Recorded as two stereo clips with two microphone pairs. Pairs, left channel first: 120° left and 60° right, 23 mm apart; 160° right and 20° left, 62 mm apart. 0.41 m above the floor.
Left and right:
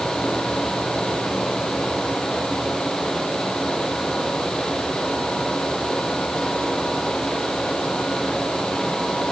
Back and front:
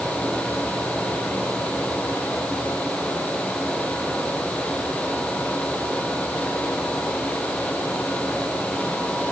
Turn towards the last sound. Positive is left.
No sound to turn to.